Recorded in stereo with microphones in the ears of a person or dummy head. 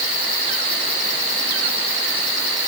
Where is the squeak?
I don't hear a squeak.